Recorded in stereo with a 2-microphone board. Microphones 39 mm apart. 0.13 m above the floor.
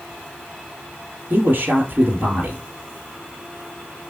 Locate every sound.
1.3 s a man speaking: 50° right (ahead or behind), 1.8 m